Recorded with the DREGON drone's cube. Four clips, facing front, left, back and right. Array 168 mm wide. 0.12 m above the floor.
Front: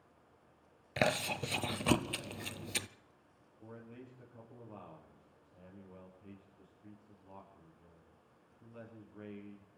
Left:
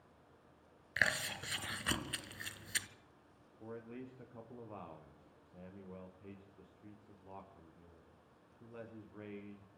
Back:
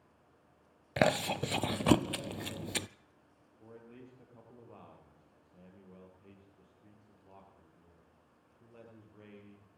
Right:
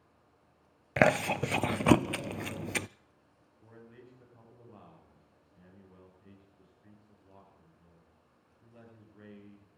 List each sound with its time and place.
1.0 s chewing: 110° right, 0.5 m
3.6 s a man speaking: 95° left, 8 m